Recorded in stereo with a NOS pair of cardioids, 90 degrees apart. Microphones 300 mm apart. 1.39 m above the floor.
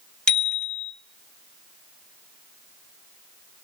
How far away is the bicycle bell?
About 3 m.